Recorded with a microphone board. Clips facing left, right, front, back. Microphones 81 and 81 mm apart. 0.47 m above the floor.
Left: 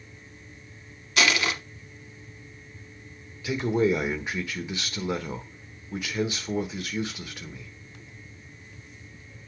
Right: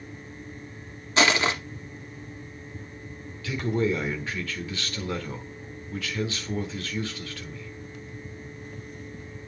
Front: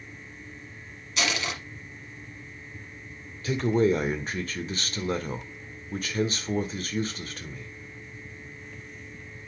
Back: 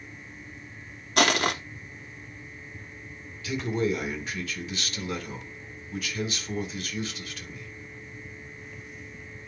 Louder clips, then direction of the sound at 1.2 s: Right 3 dB, back 7 dB; 150° right.